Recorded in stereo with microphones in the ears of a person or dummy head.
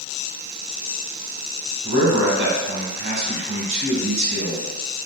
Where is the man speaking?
60° right (ahead or behind), 1.7 m.